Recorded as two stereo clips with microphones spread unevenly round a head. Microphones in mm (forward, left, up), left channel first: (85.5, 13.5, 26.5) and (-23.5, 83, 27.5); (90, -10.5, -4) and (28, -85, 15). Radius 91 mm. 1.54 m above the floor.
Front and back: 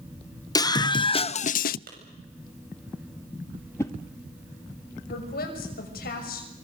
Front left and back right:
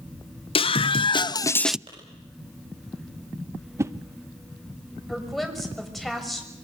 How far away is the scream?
About 1.8 m.